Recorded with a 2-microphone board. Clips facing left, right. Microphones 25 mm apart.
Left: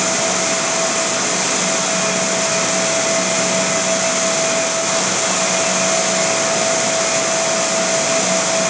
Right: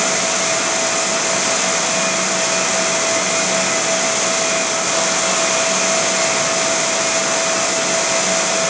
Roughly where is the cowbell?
No cowbell in this recording.